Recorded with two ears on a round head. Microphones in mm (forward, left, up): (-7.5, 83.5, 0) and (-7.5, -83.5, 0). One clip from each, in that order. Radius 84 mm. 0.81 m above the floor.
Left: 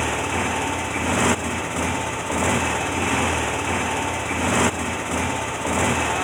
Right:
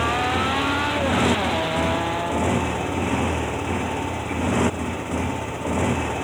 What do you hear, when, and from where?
0.0 s a motorcycle: 50° left (ahead or behind)